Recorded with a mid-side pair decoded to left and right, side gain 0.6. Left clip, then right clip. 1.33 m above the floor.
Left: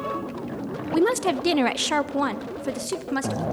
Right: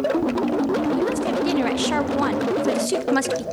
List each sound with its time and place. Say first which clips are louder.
0.9 s a woman speaking: even; 45° left, 1.4 m; by 3.5 s 35° right, 2 m